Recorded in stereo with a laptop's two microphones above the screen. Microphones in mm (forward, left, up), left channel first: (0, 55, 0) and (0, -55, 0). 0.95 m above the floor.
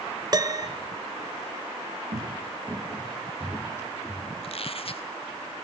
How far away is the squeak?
About 1.2 m.